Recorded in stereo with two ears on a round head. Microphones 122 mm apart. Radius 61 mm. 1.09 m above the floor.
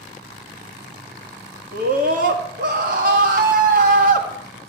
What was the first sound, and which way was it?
A scream, 65° right (ahead or behind).